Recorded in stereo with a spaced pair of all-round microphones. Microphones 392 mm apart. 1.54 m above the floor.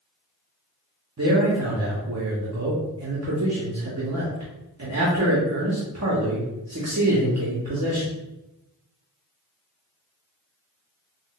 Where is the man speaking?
45° right (ahead or behind), 0.6 m.